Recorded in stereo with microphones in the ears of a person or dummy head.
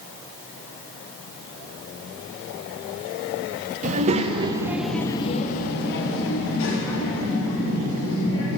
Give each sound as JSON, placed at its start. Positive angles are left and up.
{"t": 3.8, "sound": "a child speaking", "side_deg": -45, "distance_m": 1.2}